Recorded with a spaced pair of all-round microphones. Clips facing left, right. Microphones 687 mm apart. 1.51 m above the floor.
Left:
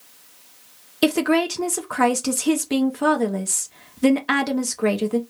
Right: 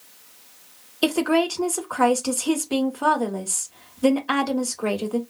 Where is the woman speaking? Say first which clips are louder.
Left 2 dB; 55° left (ahead or behind), 0.6 m.